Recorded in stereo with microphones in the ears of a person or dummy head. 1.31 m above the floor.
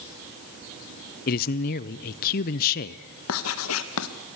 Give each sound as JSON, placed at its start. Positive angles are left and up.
{"t": 1.3, "sound": "a man speaking", "side_deg": 50, "distance_m": 0.5}
{"t": 3.3, "sound": "writing", "side_deg": 80, "distance_m": 0.9}